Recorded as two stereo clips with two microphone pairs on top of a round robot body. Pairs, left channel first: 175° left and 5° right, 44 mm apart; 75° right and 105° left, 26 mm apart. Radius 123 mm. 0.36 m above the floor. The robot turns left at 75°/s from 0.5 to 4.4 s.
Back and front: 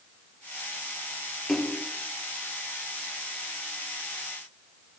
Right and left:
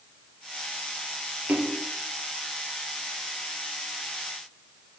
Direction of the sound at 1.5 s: 85° left.